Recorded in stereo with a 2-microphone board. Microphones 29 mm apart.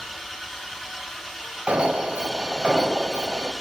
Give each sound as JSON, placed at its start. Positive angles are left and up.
{"t": 0.0, "sound": "an engine running", "side_deg": 0, "distance_m": 2.5}
{"t": 1.7, "sound": "an alarm", "side_deg": -50, "distance_m": 0.9}